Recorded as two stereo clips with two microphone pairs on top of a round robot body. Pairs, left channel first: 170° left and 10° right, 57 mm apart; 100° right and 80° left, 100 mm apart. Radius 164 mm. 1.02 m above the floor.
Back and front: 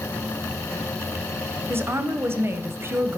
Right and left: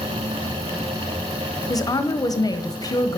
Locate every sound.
1.7 s a woman speaking: 55° right, 1.0 m